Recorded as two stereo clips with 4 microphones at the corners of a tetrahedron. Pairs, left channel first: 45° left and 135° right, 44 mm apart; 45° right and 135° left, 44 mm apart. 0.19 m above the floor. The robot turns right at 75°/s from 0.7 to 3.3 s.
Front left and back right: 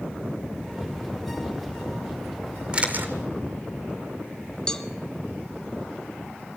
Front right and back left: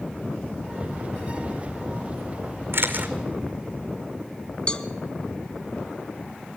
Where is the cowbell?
5° right, 1.1 m.